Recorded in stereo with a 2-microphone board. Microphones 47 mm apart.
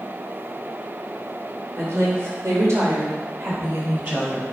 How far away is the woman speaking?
About 3 m.